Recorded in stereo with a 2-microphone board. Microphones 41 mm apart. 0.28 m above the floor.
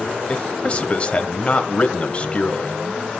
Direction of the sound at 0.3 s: 30° left (ahead or behind).